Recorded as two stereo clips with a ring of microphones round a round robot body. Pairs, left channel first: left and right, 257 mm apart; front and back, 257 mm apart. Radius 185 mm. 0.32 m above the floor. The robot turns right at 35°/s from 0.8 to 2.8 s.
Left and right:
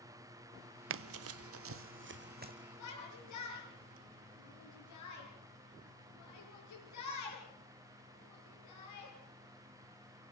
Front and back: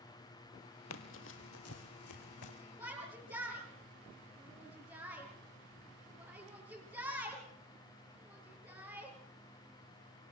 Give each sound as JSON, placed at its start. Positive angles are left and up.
{"t": 0.9, "sound": "running footsteps", "azimuth_deg": -50, "distance_m": 0.5}
{"t": 2.8, "sound": "a shout", "azimuth_deg": 100, "distance_m": 6.0}